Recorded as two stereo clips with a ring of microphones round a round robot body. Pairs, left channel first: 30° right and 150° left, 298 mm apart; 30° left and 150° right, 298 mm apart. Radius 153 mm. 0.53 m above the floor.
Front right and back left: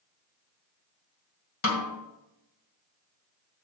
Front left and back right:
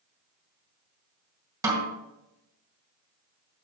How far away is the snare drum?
About 2 m.